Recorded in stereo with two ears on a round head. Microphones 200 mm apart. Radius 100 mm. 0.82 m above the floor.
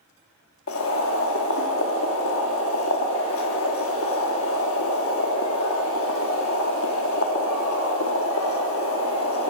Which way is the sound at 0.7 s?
65° left (ahead or behind).